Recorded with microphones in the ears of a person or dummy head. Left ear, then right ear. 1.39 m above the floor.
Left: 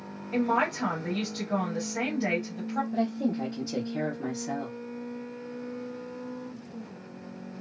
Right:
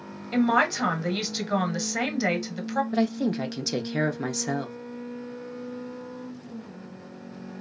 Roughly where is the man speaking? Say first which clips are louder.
Right 4 dB; right.